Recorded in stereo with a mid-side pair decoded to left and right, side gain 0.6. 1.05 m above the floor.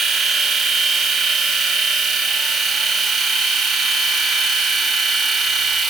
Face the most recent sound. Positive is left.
turn(degrees=-40)